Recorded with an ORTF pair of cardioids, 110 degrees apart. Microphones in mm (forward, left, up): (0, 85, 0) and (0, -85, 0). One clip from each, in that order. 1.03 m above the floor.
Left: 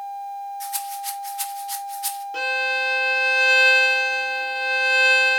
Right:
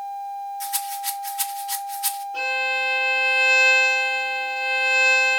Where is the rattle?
10° right, 1.4 m.